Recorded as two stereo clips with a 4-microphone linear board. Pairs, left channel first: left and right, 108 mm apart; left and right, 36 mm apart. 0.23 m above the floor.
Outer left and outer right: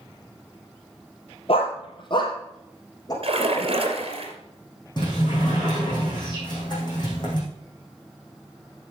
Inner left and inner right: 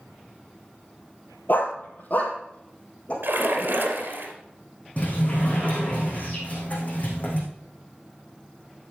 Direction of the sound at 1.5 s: 60° left (ahead or behind).